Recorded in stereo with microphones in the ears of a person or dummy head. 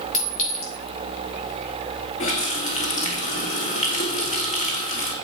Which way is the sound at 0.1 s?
45° left (ahead or behind).